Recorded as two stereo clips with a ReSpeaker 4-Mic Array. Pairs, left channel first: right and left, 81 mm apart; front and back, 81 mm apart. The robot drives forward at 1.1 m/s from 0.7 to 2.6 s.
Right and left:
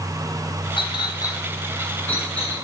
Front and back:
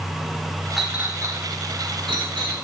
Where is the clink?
90° right, 0.7 m; by 2.5 s 160° right, 2 m.